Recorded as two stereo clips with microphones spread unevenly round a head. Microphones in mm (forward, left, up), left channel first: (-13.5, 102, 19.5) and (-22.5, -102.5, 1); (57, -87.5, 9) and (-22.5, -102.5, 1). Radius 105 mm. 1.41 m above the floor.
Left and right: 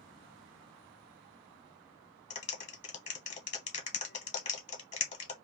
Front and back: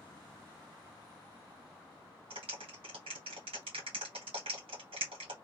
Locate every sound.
2.3 s a clap: 145° left, 1.0 m